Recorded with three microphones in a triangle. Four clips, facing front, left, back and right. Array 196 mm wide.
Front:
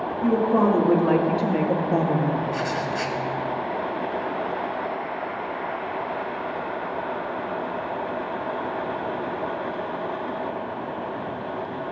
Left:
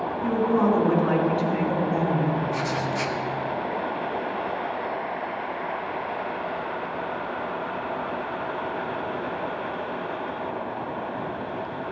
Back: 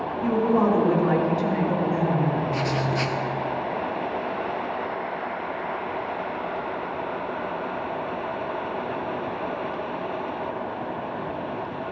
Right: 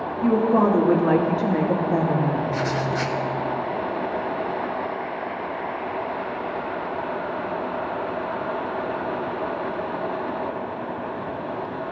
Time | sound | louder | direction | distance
0.2 | a woman speaking | right 4 dB, front 1 dB | 70° right | 2.5 m
2.5 | writing | right 2 dB, back 1 dB | 135° right | 1.0 m